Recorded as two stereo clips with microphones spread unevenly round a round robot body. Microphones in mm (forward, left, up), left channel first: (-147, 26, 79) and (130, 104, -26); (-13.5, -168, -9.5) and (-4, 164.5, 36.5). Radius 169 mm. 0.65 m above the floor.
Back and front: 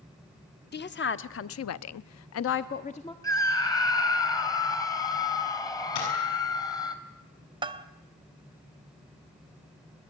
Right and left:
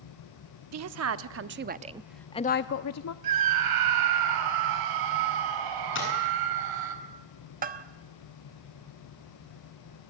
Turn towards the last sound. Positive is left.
turn(degrees=30)